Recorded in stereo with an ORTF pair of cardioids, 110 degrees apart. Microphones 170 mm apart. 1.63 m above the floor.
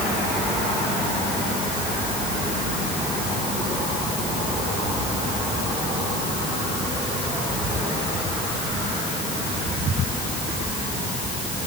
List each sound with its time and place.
Only background noise.